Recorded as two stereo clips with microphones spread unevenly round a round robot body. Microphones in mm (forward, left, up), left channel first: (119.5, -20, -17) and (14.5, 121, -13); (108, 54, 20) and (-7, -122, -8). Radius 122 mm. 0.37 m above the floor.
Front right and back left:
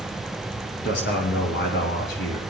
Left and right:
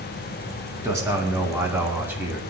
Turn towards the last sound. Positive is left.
turn(degrees=-45)